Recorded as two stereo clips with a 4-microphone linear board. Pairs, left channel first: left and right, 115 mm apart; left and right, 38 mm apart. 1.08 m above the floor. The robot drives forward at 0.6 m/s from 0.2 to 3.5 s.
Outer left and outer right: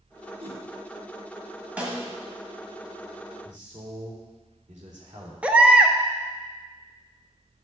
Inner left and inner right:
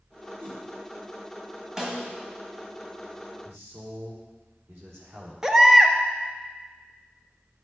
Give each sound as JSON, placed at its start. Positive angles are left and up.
{"t": 0.4, "sound": "a whoosh", "side_deg": -55, "distance_m": 1.9}
{"t": 1.8, "sound": "a snare drum", "side_deg": -10, "distance_m": 1.6}
{"t": 3.4, "sound": "a man speaking", "side_deg": -85, "distance_m": 3.0}
{"t": 5.4, "sound": "a baby crying", "side_deg": -10, "distance_m": 0.7}